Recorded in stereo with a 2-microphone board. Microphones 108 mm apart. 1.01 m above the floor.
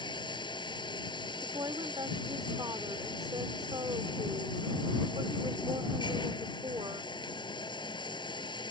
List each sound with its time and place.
0.0 s running water: 45° left (ahead or behind)
1.4 s a woman speaking: 40° right (ahead or behind)